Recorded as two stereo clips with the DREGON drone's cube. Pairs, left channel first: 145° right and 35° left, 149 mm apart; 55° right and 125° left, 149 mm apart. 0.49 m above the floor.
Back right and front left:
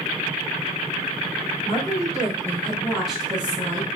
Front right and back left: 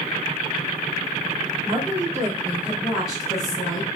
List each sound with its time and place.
1.6 s a woman speaking: 175° left, 1.4 m; by 3.9 s 15° left, 1.3 m